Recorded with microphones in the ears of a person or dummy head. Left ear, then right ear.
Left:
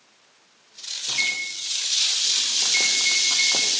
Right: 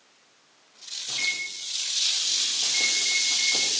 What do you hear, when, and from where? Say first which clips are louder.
1.1 s a microwave: left 3 dB; 50° left (ahead or behind), 1.5 m